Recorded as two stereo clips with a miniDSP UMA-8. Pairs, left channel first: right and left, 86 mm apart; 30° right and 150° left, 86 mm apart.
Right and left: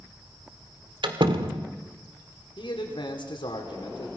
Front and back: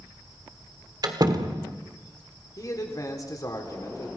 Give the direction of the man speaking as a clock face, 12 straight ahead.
3 o'clock.